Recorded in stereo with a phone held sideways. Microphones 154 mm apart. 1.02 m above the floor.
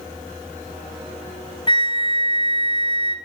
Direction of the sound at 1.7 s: 30° left (ahead or behind).